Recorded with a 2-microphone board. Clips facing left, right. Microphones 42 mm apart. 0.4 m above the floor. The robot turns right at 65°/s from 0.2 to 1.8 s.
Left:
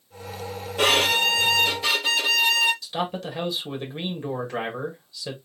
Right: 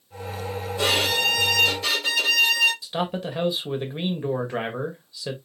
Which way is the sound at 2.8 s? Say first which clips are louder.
Right 1 dB; 10° right (ahead or behind).